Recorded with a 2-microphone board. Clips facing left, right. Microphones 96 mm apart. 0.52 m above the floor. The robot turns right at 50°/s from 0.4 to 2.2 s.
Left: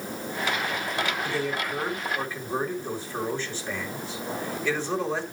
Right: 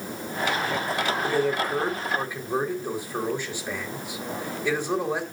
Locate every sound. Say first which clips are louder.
1.2 s a man speaking: right 5 dB; 65° right, 2.5 m; by 5.2 s 15° right, 2.5 m